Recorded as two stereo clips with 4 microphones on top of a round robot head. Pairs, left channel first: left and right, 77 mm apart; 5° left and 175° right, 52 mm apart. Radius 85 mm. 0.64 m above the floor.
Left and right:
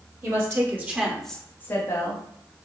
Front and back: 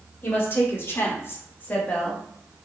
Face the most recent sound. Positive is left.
turn(degrees=75)